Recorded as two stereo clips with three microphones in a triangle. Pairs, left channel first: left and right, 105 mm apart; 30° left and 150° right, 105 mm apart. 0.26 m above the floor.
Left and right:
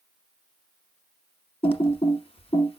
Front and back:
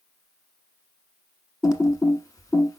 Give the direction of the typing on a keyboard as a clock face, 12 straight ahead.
9 o'clock.